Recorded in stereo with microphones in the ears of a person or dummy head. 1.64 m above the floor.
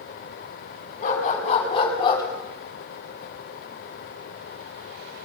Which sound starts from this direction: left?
A dog barking, at 1.0 s.